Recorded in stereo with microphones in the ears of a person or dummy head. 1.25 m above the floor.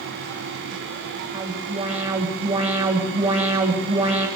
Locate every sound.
1.3 s an alarm: 30° right (ahead or behind), 7.5 m